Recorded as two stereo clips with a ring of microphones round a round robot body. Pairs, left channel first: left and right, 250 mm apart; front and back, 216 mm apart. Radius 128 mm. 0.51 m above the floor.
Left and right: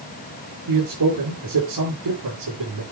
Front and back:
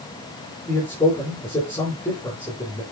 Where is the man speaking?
80° right, 8 m.